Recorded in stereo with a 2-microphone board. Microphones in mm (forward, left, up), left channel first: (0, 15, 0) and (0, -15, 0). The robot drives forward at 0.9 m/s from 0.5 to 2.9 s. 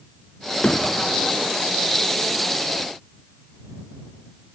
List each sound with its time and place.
0.6 s hammering: 40° left (ahead or behind)